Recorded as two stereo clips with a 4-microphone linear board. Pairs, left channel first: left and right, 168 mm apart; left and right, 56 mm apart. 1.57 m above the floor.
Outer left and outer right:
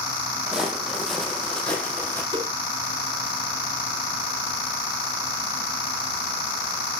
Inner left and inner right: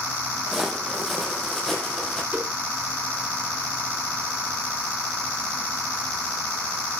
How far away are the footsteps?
About 3 m.